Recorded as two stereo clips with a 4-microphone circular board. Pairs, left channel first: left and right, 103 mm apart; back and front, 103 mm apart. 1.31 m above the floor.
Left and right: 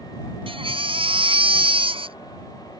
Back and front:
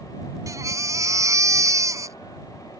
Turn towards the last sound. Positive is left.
turn(degrees=-60)